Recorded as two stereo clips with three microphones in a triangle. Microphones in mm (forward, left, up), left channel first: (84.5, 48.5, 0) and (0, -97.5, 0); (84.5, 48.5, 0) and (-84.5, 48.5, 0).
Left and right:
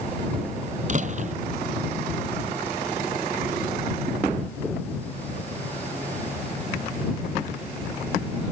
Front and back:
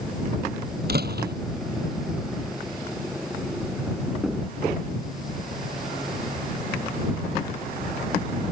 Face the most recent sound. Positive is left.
turn(degrees=-165)